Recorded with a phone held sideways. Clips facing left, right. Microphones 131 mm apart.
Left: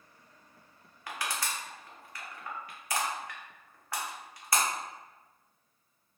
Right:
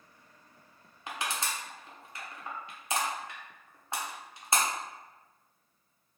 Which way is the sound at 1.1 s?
25° right (ahead or behind).